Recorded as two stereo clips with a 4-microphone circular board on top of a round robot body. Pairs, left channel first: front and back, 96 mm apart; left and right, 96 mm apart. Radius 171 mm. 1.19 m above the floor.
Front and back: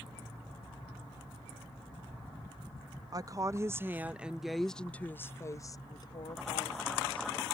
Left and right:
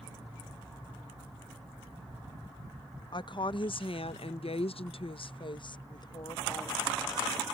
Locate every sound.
3.1 s a woman speaking: 130° left; by 7.3 s 30° left